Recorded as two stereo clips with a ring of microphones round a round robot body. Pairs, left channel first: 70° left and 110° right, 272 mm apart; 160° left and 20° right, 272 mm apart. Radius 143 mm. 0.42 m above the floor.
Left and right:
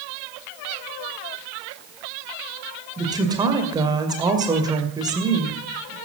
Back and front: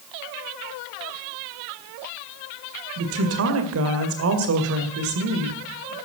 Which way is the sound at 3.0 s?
40° right.